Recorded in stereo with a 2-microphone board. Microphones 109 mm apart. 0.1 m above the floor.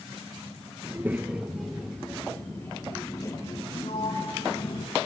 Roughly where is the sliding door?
Left.